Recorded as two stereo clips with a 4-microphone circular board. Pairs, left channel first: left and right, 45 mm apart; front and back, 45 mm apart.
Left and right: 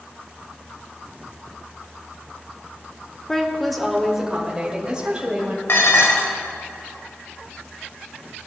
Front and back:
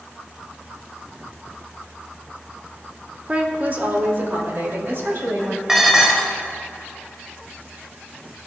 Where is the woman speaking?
150° left, 1.1 m; by 5.6 s 155° right, 2.5 m.